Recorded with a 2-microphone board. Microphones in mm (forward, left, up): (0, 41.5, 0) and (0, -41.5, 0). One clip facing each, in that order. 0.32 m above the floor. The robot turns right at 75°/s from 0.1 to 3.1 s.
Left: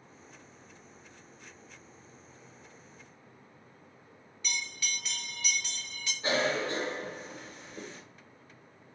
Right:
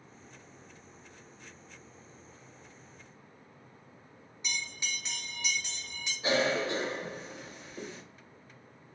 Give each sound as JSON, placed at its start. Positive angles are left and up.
{"t": 4.4, "sound": "a bell", "side_deg": -20, "distance_m": 1.1}
{"t": 6.2, "sound": "a cough", "side_deg": -5, "distance_m": 1.0}